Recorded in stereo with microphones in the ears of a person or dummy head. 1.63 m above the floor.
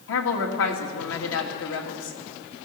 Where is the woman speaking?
75° left (ahead or behind), 2 m.